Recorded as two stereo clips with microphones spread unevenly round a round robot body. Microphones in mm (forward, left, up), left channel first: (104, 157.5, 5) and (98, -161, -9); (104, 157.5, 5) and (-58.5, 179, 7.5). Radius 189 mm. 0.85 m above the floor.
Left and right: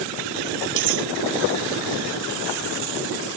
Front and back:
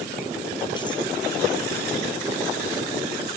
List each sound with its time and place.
0.8 s cutlery clinking: 85° right